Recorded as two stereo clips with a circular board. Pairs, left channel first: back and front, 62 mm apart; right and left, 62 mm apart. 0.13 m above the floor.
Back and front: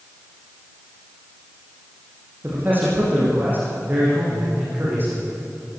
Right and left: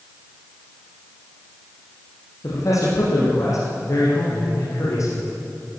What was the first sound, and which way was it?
A man speaking, 60° right.